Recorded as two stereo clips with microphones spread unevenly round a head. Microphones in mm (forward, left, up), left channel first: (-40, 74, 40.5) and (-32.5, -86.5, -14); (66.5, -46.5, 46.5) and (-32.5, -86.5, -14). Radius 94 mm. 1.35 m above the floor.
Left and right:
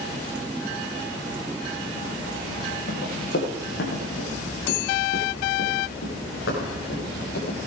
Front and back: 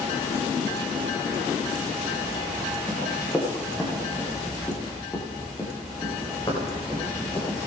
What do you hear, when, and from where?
2.9 s running footsteps: 100° left, 6 m; by 7.6 s 75° left, 6.5 m